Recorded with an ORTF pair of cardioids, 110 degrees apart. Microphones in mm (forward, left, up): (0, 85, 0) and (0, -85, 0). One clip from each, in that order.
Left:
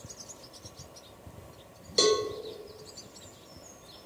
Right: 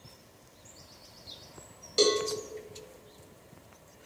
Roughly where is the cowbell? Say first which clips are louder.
Left 1 dB; ahead.